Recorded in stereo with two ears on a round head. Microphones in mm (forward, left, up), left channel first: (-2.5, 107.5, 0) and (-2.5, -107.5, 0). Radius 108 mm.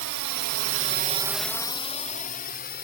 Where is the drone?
85° right; by 2.8 s 45° left (ahead or behind).